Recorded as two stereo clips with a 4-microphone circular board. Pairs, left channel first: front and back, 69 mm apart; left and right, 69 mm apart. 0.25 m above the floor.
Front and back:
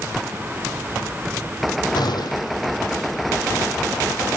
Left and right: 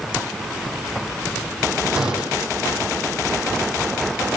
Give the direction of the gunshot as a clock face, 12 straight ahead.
12 o'clock.